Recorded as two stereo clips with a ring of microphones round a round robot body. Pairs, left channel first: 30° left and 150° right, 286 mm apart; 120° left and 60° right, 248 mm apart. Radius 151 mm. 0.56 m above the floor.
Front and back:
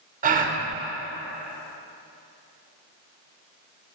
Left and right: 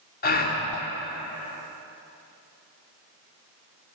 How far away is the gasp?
About 0.8 m.